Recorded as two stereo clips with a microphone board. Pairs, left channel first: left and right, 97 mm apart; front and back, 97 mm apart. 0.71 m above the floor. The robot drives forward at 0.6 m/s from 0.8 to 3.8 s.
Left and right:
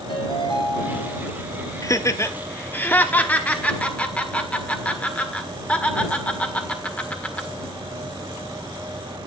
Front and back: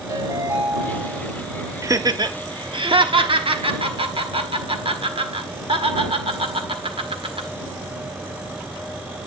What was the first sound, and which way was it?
A ringtone, 120° left.